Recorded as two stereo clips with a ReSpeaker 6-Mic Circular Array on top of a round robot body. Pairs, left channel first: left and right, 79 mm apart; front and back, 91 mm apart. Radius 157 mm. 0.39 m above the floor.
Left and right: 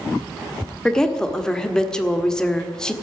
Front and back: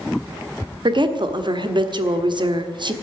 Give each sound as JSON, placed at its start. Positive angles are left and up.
{"t": 0.8, "sound": "a woman speaking", "azimuth_deg": 170, "distance_m": 1.6}